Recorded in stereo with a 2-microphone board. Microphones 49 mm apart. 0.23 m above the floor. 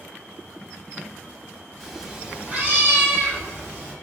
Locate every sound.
1.8 s a cat meowing: centre (ahead or behind), 0.7 m; by 3.9 s 55° right (ahead or behind), 1.4 m